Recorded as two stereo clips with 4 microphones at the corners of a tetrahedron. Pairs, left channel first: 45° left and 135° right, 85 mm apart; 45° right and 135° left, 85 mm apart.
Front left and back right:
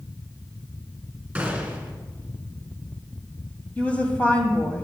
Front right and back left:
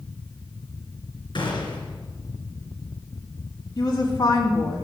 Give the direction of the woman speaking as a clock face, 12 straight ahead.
1 o'clock.